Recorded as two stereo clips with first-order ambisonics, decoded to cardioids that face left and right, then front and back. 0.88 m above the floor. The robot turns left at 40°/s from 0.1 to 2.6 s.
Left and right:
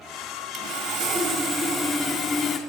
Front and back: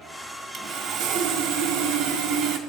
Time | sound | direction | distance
0.5 | sawing | 110° right | 1.6 m